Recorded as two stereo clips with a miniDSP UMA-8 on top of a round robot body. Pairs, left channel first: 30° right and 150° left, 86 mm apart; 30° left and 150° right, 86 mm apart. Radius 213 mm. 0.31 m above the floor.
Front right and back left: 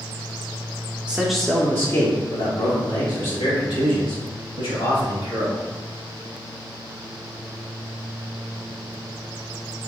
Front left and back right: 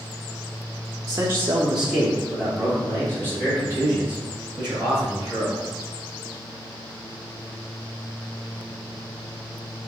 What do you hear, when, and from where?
1.1 s a man speaking: 145° right, 0.9 m; by 5.7 s 30° right, 3 m